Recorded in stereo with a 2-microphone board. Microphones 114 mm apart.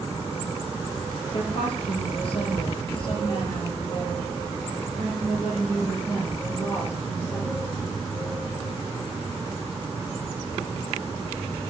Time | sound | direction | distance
1.3 | a woman speaking | 55° left (ahead or behind) | 2.5 m